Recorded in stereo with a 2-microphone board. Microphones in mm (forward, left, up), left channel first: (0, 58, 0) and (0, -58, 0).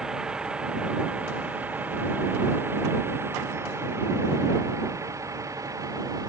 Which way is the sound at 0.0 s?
5° right (ahead or behind).